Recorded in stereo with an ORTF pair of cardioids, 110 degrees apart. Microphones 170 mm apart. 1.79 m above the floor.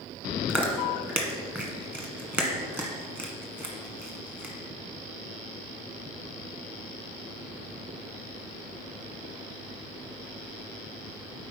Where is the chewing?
10° right, 1.4 m.